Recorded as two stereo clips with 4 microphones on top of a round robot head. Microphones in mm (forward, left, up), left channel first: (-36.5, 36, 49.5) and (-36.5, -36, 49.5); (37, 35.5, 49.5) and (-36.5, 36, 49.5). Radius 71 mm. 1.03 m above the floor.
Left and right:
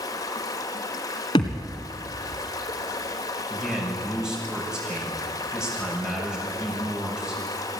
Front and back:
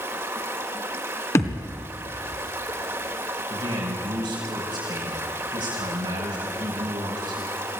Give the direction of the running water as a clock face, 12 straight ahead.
8 o'clock.